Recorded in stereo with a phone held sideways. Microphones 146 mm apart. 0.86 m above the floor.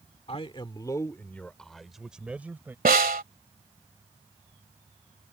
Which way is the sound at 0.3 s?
40° left (ahead or behind).